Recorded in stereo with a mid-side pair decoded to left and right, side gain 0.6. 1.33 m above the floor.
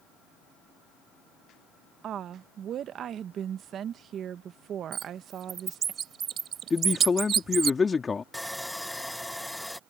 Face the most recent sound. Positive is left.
turn(degrees=0)